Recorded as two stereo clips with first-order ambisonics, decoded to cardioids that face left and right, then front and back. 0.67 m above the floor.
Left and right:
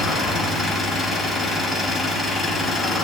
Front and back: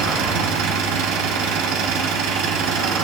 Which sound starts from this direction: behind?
An engine running, at 0.0 s.